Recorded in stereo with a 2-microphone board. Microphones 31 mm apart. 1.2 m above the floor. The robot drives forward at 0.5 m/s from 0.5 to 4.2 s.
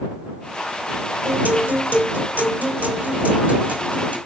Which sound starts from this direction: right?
A guitar, at 1.2 s.